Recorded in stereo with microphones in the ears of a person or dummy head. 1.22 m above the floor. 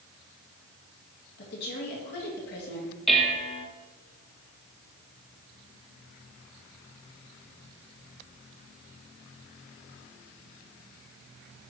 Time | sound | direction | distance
1.4 | a woman speaking | 55° left (ahead or behind) | 1.8 m
3.1 | dishes clattering | centre (ahead or behind) | 0.8 m